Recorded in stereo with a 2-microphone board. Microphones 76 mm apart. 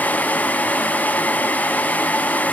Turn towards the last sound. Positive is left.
No sound to turn to.